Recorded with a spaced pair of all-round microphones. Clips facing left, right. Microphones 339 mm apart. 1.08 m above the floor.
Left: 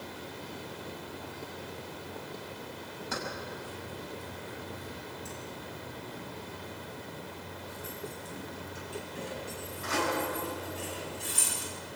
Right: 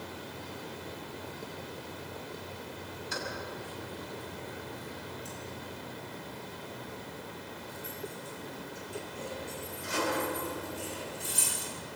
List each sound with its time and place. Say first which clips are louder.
3.1 s keys jangling: left 1 dB; 65° left (ahead or behind), 5.5 m; by 11.7 s 75° left (ahead or behind), 7.5 m